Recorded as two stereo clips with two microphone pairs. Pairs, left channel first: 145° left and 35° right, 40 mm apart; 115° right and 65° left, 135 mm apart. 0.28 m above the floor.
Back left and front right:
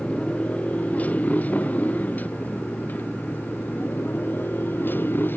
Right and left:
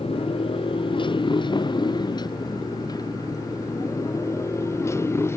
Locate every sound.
0.0 s a motorcycle: 160° right; by 5.4 s 175° left